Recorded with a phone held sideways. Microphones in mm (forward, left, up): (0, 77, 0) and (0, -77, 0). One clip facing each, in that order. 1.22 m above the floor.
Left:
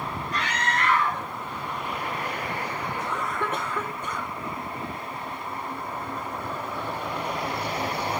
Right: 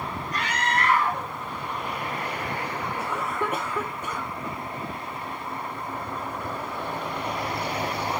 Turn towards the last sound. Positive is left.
turn(degrees=-10)  # may be behind; listen again after turning